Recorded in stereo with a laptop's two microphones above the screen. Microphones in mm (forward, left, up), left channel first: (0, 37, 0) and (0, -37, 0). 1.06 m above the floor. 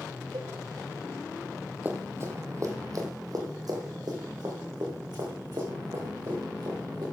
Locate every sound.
0.3 s a cowbell: 75° right (ahead or behind), 1.2 m
1.9 s running footsteps: 25° right (ahead or behind), 1.5 m; by 7.0 s 80° right, 5 m